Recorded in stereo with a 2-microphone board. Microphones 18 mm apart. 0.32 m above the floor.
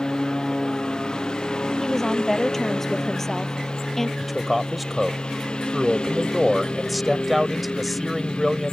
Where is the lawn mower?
45° left (ahead or behind); by 8.7 s 65° left (ahead or behind).